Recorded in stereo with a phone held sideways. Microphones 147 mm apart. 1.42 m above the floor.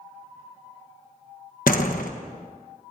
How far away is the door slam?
About 1.2 m.